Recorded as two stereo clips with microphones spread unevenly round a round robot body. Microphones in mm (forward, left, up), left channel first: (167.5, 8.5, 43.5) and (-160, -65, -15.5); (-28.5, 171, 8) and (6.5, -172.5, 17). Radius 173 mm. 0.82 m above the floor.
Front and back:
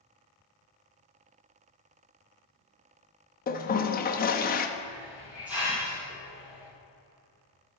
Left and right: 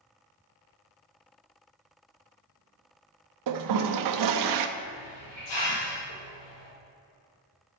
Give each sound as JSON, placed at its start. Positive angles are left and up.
{"t": 3.5, "sound": "a toilet flushing", "azimuth_deg": -55, "distance_m": 0.7}
{"t": 4.8, "sound": "a hiss", "azimuth_deg": 105, "distance_m": 4.0}